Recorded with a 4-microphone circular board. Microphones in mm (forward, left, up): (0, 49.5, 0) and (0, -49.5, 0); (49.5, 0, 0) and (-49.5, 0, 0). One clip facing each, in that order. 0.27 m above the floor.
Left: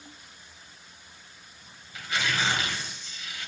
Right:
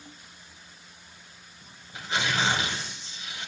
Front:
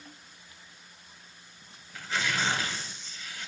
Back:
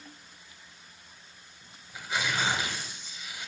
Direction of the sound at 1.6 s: 120° right.